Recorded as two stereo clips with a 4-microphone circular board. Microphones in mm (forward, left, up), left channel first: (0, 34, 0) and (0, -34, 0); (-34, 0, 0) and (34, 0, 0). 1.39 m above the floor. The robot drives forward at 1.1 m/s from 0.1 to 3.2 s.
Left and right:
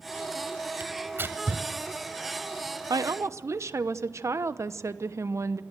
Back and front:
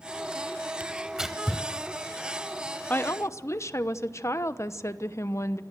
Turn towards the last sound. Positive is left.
turn(degrees=-135)